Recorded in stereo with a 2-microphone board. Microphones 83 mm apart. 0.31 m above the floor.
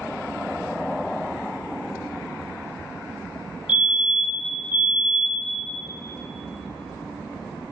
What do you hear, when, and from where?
3.7 s a fire alarm: 15° right (ahead or behind), 3.5 m